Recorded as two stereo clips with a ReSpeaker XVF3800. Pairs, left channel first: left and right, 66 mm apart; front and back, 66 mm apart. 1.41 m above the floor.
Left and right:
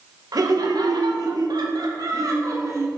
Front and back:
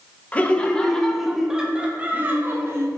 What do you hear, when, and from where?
0.3 s laughter: 70° right, 1.4 m; by 2.9 s 130° right, 1.4 m